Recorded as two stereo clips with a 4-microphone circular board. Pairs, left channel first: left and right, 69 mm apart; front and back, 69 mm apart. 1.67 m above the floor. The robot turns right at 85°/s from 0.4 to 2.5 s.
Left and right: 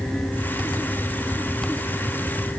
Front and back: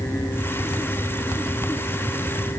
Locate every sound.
Only background noise.